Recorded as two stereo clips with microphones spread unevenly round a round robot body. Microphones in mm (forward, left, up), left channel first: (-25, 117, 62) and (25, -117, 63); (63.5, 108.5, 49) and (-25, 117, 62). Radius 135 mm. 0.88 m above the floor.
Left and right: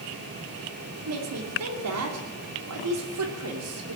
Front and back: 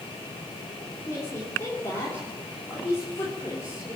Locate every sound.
1.1 s a woman speaking: 75° right, 3 m